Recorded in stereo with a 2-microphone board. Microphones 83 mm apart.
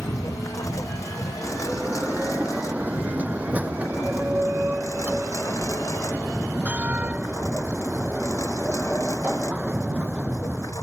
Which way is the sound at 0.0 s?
40° left (ahead or behind).